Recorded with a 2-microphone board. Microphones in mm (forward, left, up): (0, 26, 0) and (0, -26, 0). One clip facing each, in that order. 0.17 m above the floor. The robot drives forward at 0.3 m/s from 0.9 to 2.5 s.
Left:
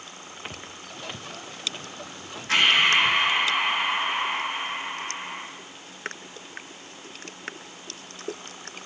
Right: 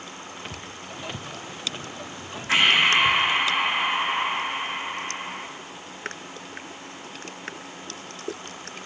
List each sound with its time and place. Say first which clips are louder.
0.5 s footsteps: right 2 dB; 10° left (ahead or behind), 1.0 m; by 3.2 s 15° right (ahead or behind), 3 m
2.5 s breathing: right 1 dB; 15° right (ahead or behind), 10 m